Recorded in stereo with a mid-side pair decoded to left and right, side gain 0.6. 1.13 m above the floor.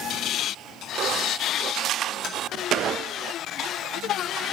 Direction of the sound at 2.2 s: 55° left.